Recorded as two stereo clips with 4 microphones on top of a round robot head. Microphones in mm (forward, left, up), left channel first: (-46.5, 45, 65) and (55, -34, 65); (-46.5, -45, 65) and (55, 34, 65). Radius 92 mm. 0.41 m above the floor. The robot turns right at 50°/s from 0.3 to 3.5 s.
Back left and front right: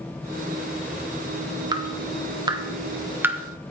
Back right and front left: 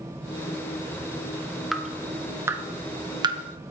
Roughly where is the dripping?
Ahead right.